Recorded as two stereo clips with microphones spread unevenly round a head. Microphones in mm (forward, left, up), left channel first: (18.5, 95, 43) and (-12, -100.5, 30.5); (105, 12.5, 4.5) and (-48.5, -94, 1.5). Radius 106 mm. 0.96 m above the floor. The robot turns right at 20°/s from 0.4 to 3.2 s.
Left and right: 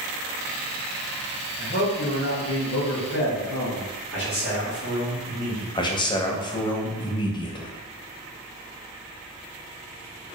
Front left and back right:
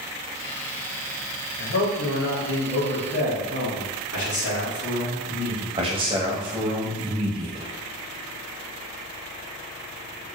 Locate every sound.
1.6 s a man speaking: 40° left, 1.5 m; by 3.9 s 70° left, 1.5 m
4.1 s a man speaking: 45° left, 2.0 m
5.8 s a man speaking: 150° left, 0.6 m